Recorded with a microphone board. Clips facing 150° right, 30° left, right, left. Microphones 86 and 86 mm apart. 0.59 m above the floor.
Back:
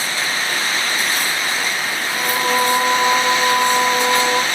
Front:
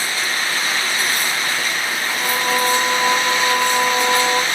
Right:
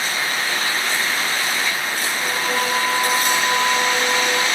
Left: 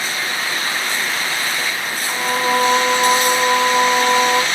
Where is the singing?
145° left, 4 m.